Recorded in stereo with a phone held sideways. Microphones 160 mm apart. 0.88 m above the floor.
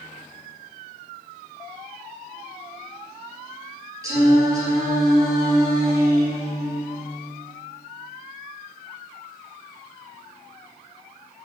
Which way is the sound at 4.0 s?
20° right (ahead or behind).